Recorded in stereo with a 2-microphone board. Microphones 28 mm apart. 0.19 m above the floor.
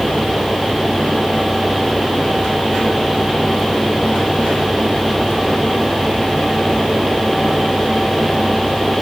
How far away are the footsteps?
I don't hear footsteps.